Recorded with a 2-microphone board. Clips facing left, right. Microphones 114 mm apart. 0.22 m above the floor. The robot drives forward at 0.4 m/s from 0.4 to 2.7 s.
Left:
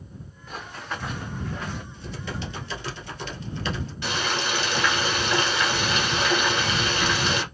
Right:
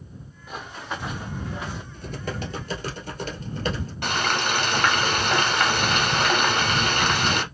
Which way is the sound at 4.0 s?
60° right (ahead or behind).